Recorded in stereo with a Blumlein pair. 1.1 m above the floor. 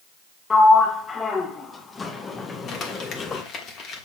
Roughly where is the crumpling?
Ahead left.